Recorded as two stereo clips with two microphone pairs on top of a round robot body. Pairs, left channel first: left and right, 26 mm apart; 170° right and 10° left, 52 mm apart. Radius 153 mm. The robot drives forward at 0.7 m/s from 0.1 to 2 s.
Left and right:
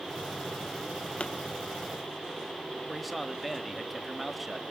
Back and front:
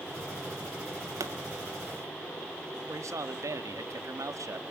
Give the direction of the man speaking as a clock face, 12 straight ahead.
12 o'clock.